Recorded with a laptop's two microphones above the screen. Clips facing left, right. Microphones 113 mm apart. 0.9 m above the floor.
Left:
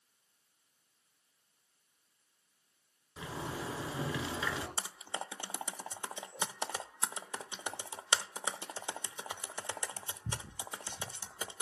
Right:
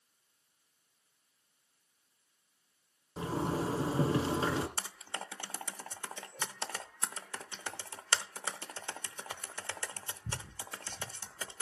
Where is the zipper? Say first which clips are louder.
Right 7 dB; 40° right (ahead or behind), 2 m.